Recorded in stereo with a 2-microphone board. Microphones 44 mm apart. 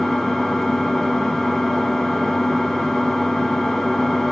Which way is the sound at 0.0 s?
5° left (ahead or behind).